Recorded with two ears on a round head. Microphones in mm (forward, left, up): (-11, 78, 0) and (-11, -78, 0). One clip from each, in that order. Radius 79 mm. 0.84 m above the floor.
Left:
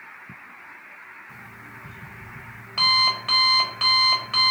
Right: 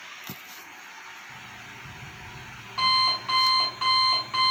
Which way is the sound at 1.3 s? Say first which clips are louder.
Even; 60° left (ahead or behind).